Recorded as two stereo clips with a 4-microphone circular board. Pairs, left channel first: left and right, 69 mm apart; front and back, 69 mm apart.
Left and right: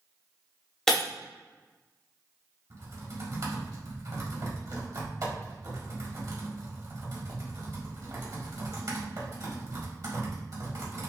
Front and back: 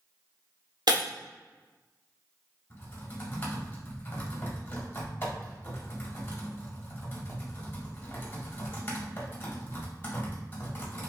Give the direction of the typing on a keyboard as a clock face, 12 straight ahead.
2 o'clock.